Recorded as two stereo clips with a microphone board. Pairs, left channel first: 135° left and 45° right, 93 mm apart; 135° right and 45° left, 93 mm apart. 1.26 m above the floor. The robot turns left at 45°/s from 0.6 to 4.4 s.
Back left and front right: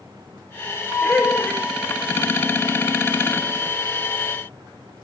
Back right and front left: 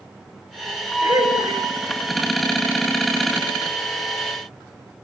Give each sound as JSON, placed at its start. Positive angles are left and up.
{"t": 1.0, "sound": "laughter", "azimuth_deg": 60, "distance_m": 4.5}